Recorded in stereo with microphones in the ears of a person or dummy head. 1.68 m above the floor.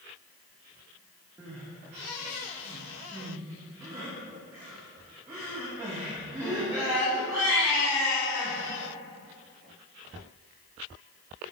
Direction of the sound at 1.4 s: 15° right (ahead or behind).